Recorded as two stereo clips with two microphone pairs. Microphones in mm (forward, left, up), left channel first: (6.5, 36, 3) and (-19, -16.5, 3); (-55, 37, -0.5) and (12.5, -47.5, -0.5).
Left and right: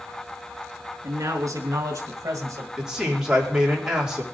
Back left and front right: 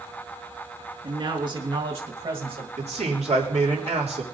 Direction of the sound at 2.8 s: 40° right.